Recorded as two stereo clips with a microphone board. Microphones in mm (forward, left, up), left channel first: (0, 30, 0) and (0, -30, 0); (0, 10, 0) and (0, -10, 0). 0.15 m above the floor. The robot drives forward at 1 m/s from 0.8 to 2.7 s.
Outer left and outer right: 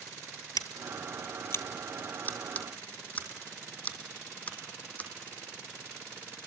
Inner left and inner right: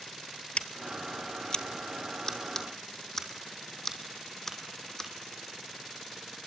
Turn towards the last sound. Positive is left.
turn(degrees=25)  # may be behind; listen again after turning